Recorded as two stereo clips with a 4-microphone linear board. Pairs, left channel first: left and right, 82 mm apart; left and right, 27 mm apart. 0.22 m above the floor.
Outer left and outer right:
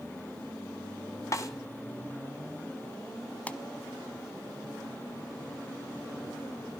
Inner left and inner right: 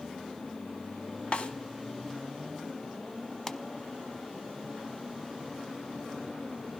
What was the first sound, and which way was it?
A snare drum, 40° left (ahead or behind).